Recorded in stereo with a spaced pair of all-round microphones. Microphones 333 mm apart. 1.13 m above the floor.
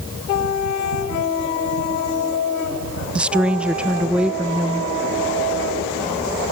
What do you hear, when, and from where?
3.1 s a woman speaking: 5° right (ahead or behind), 0.9 m